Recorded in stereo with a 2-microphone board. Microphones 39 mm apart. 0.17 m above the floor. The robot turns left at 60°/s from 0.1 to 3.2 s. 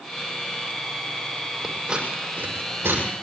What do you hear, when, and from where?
1.6 s scissors: 5° right (ahead or behind), 6.5 m; by 3.0 s 80° right, 6.5 m